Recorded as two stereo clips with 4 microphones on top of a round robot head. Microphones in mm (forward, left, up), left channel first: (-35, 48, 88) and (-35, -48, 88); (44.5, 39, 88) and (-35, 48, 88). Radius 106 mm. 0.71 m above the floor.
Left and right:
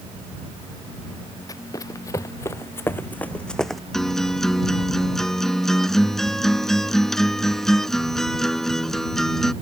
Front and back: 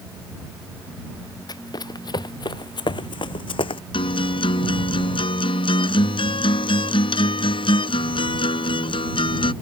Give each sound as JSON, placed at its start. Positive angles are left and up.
{"t": 1.5, "sound": "running footsteps", "azimuth_deg": 30}
{"t": 3.9, "sound": "a guitar", "azimuth_deg": 5}